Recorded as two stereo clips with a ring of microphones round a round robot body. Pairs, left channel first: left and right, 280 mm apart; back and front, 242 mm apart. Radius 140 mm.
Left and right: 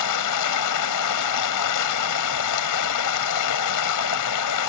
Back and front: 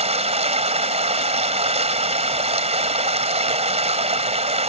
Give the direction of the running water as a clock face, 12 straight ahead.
10 o'clock.